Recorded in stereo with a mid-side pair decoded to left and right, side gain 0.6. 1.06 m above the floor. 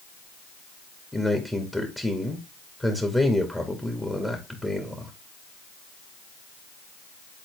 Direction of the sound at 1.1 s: 5° left.